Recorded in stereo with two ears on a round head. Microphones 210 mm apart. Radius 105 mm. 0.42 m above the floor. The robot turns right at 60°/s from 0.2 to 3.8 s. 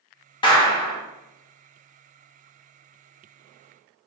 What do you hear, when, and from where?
0.4 s a clap: 20° left (ahead or behind), 0.5 m; by 1.0 s 25° left (ahead or behind), 0.5 m